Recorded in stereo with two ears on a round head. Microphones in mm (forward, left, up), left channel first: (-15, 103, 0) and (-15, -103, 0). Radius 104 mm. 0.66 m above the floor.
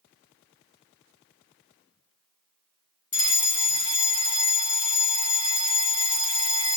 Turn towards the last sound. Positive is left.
turn(degrees=20)  # may be behind; listen again after turning